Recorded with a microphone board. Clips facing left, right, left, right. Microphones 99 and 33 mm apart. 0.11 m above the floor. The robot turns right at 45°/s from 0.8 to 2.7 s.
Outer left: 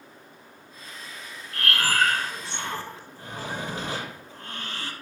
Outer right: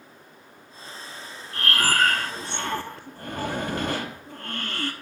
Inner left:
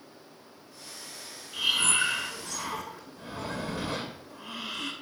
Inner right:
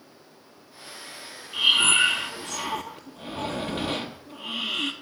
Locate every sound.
1.5 s breathing: 145° right, 0.9 m; by 4.9 s 90° right, 0.9 m